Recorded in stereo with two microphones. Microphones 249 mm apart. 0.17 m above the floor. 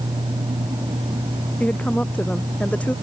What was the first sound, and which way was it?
A woman speaking, 5° left (ahead or behind).